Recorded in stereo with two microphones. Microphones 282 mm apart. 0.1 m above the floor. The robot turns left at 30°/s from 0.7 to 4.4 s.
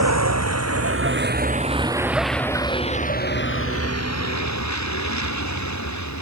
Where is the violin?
No violin in this recording.